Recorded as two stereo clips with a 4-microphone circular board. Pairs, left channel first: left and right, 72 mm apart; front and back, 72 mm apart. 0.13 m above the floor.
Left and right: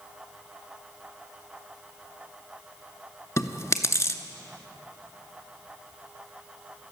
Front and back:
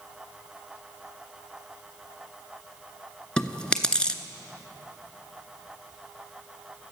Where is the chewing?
70° left, 0.8 m.